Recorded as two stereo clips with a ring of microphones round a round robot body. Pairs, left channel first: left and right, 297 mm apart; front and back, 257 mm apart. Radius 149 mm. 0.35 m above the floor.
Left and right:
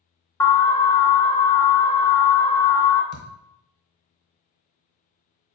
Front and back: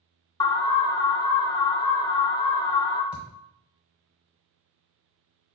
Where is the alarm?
30° left, 0.5 m.